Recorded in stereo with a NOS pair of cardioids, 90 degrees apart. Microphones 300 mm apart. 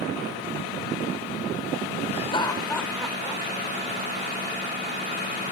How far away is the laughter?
About 1.0 m.